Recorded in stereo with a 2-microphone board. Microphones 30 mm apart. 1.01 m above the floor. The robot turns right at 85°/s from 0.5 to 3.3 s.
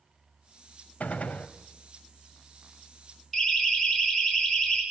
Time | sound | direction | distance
1.0 | a gunshot | 75° left | 1.3 m
3.3 | a siren | centre (ahead or behind) | 8.5 m